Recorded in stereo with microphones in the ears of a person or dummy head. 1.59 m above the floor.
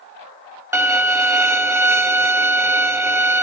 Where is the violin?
20° right (ahead or behind), 0.7 m.